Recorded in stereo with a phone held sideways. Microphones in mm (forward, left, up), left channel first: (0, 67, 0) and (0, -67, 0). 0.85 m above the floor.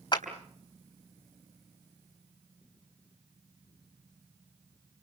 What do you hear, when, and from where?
0.1 s a clap: 40° left (ahead or behind), 3.5 m